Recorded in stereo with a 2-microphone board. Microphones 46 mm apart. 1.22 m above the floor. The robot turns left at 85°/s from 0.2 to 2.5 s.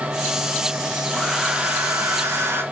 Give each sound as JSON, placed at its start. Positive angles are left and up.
{"t": 1.1, "sound": "a hair dryer", "azimuth_deg": 5, "distance_m": 1.6}